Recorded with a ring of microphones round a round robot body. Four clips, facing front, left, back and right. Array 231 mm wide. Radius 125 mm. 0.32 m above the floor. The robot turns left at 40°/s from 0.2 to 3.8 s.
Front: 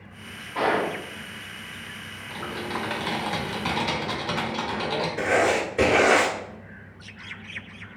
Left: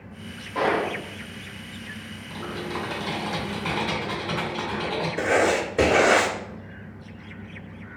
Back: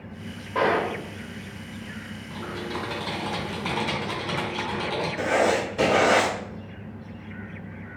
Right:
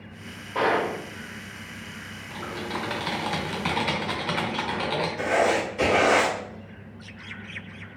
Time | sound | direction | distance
0.6 | a gunshot | 155° right | 1.7 m
2.3 | typing on a keyboard | 15° right | 1.0 m
5.2 | writing | 75° left | 1.3 m